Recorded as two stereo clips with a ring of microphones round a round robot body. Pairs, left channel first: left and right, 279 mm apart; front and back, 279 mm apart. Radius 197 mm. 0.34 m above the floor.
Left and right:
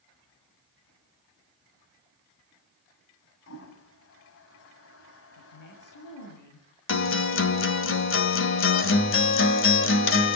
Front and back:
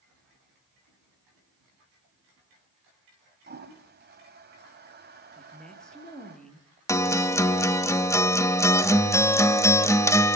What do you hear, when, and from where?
3.5 s a toilet flushing: 135° left, 2.5 m
5.4 s a woman speaking: 90° left, 8 m
6.9 s a guitar: 75° left, 1.7 m